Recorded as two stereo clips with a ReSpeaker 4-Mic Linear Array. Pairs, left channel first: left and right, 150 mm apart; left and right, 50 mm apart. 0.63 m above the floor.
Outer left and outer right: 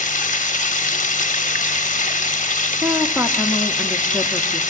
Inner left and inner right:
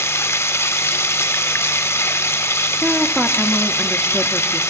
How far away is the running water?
About 0.8 m.